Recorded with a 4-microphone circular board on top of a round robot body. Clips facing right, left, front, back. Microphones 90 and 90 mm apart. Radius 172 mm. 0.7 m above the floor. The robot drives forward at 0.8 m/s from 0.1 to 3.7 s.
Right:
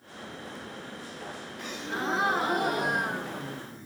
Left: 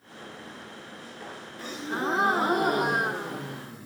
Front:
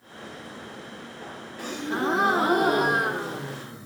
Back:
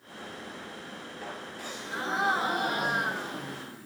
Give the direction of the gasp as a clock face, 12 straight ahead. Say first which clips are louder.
Left 3 dB, front 10 dB; 11 o'clock.